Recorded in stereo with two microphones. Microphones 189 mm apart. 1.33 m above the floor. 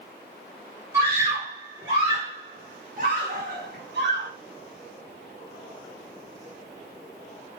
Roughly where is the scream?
Centre.